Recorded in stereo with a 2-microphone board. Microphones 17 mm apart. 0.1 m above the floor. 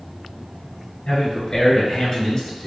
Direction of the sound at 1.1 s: 30° left (ahead or behind).